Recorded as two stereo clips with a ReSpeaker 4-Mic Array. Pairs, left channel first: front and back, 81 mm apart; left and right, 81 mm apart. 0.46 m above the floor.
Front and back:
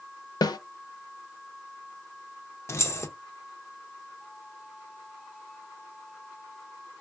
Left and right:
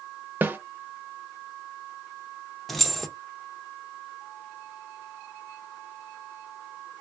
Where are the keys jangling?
5° left, 0.5 m.